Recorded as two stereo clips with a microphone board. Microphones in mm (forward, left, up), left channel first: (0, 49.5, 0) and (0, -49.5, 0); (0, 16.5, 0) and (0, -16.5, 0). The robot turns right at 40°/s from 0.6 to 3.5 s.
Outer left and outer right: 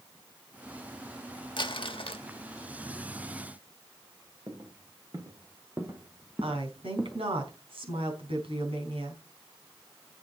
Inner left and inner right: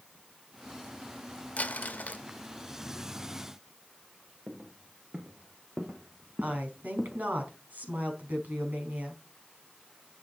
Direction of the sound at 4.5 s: 45° right (ahead or behind).